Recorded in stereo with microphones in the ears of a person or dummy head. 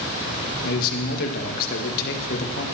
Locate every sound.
0.6 s a man speaking: 50° left (ahead or behind), 1.6 m